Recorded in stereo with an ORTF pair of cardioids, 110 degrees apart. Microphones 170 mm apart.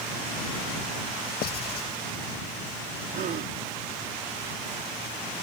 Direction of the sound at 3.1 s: 60° right.